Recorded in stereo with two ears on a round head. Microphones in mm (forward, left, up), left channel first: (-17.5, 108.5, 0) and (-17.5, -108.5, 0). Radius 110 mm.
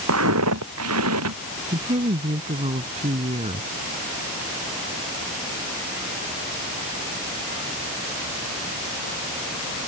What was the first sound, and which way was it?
Footsteps, 60° right (ahead or behind).